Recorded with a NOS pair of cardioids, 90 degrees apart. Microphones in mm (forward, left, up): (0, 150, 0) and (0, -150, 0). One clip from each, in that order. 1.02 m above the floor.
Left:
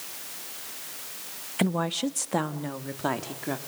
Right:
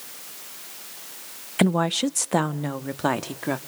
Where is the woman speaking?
30° right, 0.7 m; by 3.6 s 35° right, 1.8 m.